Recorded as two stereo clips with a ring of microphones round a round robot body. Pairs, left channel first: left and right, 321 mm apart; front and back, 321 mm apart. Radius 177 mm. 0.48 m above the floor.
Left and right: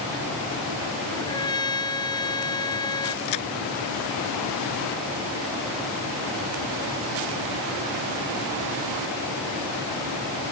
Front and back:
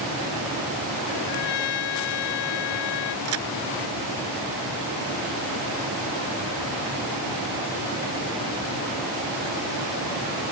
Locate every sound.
1.1 s a trumpet: 15° left
3.2 s a crack: 130° left